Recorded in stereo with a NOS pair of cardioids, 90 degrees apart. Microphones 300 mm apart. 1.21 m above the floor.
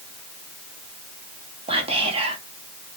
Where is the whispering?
20° right, 1.1 m.